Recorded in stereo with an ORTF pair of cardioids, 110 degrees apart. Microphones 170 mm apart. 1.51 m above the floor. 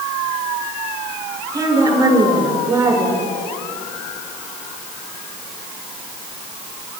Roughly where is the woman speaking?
Ahead.